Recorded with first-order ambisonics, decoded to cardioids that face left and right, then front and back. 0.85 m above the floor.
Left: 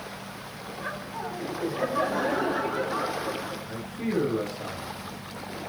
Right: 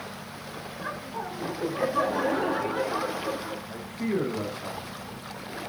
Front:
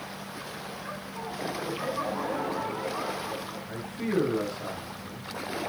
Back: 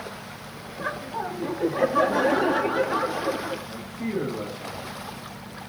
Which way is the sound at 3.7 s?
55° left.